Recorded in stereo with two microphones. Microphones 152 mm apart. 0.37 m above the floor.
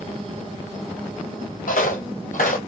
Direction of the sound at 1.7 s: 60° left (ahead or behind).